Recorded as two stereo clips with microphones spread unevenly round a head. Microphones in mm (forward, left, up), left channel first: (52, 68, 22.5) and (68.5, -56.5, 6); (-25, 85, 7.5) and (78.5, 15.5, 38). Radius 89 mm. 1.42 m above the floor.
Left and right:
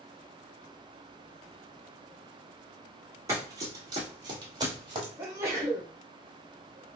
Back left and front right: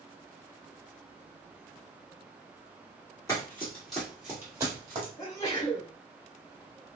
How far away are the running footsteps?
About 1.5 m.